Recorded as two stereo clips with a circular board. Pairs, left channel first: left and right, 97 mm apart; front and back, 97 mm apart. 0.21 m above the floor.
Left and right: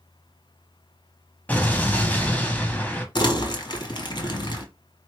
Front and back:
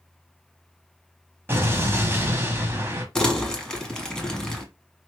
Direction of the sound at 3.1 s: 80° left.